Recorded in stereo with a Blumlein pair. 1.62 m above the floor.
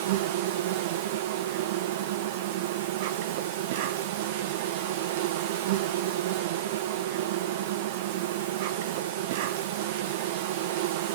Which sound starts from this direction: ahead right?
An insect, at 0.0 s.